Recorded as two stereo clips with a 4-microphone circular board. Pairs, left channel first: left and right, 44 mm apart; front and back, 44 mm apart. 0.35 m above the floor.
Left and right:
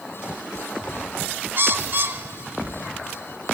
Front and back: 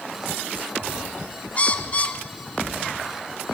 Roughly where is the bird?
Ahead right.